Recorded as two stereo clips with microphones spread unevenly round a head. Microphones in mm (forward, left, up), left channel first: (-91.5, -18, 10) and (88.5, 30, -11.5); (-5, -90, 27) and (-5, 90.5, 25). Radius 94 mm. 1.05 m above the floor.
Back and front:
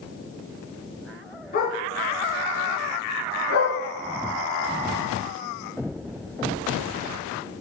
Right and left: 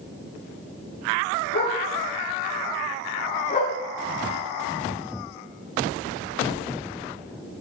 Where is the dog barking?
120° right, 6 m; by 3.8 s 145° right, 6 m.